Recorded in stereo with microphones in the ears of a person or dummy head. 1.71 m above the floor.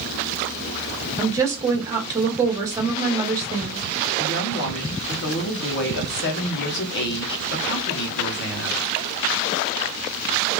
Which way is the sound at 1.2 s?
15° right (ahead or behind).